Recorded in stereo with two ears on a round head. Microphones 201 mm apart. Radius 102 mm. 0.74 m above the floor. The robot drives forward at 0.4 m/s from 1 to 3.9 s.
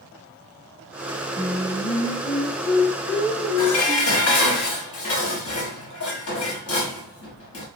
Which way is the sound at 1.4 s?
40° left (ahead or behind).